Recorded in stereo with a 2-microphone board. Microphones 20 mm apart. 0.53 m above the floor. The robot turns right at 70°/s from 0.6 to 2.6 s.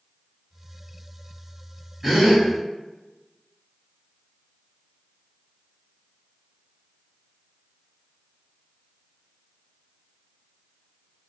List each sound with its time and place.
2.0 s a gasp: 10° right (ahead or behind), 1.7 m; by 2.4 s 40° right (ahead or behind), 1.7 m